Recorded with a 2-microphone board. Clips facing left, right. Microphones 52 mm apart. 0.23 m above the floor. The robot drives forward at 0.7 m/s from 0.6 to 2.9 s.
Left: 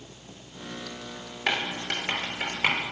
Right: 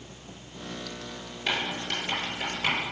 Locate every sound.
1.5 s writing: 50° left (ahead or behind), 3.5 m; by 2.8 s 40° left (ahead or behind), 4 m